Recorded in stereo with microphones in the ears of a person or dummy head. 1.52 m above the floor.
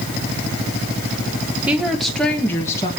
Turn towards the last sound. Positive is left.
turn(degrees=15)  # may be behind; listen again after turning